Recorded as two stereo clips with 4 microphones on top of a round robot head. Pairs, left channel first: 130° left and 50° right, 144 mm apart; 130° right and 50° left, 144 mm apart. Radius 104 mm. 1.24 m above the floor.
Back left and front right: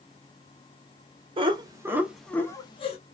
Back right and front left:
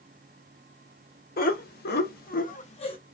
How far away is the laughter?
About 1.0 m.